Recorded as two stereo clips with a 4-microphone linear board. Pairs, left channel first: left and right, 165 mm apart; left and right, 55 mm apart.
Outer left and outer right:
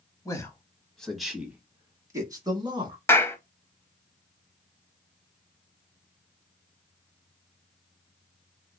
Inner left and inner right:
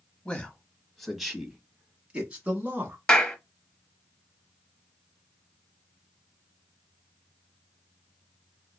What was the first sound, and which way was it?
A man speaking, 20° left (ahead or behind).